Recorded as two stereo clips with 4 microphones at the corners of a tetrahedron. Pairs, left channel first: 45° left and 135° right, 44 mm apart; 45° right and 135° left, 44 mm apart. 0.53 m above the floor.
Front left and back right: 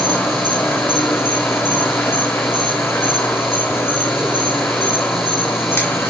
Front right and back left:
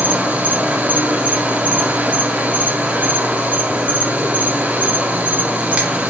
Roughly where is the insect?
Left.